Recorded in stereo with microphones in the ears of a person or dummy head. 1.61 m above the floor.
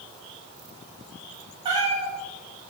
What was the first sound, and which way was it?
A cat meowing, 30° right (ahead or behind).